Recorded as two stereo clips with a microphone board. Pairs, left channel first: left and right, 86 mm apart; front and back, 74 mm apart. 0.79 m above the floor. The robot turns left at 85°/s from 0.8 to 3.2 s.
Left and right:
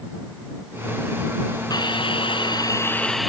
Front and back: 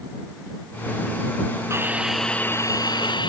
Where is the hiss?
130° left; by 3.3 s straight ahead.